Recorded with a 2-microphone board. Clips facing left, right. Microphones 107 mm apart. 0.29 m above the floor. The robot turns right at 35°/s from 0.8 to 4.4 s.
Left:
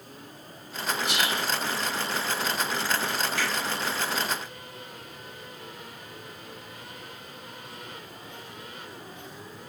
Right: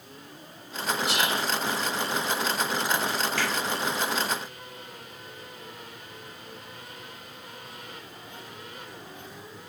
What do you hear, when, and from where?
1.1 s whispering: 5° left (ahead or behind), 1.7 m; by 1.4 s centre (ahead or behind), 1.7 m
3.4 s a finger snap: 15° left (ahead or behind), 1.9 m; by 3.5 s 10° left (ahead or behind), 1.9 m